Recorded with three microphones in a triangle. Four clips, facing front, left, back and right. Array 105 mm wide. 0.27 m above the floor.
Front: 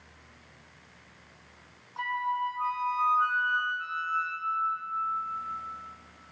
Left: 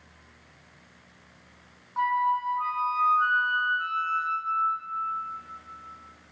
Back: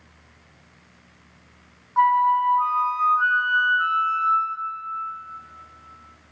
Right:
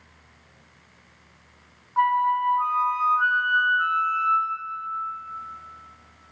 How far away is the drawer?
No drawer in this recording.